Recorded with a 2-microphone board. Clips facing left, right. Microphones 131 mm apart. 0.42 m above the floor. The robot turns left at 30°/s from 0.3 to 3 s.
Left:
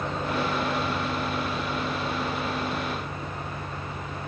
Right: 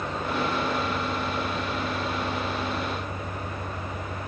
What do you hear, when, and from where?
0.0 s an engine running: 20° left, 7.5 m; by 4.3 s 60° right, 7.5 m